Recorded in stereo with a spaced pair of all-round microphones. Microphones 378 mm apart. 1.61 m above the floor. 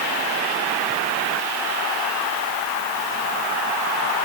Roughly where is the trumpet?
No trumpet in this recording.